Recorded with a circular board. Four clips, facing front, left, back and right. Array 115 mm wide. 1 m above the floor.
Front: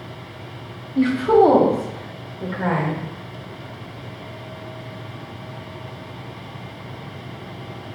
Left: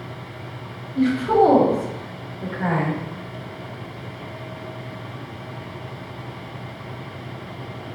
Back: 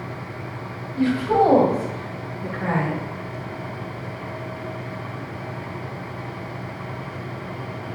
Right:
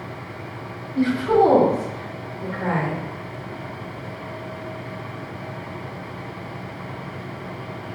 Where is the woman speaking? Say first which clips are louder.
Even, front 4 dB; 10° right, 2 m; by 3.0 s 10° left, 5 m.